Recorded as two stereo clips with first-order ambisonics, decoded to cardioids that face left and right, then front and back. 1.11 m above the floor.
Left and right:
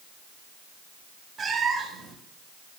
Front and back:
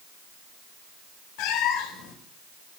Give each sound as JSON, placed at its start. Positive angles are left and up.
{"t": 1.4, "sound": "a cat meowing", "azimuth_deg": -20, "distance_m": 1.2}